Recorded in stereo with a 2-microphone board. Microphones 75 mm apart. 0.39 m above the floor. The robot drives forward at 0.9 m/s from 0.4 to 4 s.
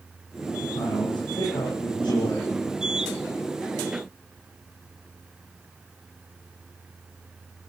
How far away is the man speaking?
About 9 m.